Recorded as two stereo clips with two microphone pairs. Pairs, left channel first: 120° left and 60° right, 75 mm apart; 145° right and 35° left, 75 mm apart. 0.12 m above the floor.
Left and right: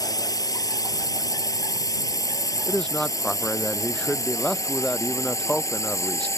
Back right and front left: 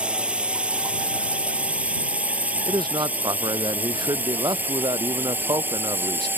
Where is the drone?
110° left; by 6.4 s 90° left.